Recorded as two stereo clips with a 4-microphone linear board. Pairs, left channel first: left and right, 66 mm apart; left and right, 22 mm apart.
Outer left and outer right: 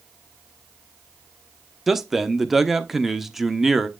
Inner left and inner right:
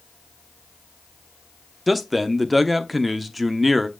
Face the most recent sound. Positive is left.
turn(degrees=-5)  # may be behind; listen again after turning